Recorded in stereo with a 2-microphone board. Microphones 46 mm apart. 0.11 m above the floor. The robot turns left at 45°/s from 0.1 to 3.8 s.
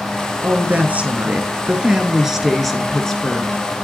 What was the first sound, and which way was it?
A woman speaking, 80° right.